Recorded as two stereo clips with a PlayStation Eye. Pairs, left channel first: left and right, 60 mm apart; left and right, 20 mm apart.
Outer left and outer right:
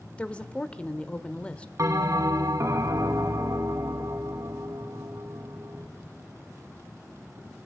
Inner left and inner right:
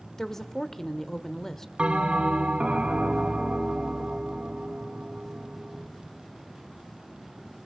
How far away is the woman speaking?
About 1.0 m.